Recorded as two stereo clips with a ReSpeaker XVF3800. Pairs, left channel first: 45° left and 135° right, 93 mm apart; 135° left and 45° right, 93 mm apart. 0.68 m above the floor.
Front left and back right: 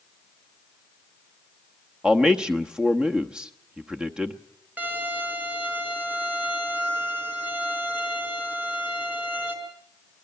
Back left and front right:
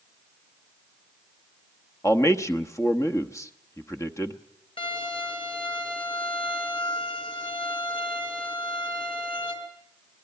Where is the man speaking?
150° left, 1.1 m.